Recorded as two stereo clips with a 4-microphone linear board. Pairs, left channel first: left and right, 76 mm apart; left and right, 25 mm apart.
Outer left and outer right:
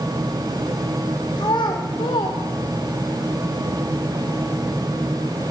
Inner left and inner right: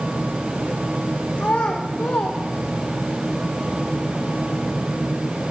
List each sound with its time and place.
1.4 s a child speaking: 75° left (ahead or behind), 1.6 m; by 3.1 s 55° left (ahead or behind), 0.9 m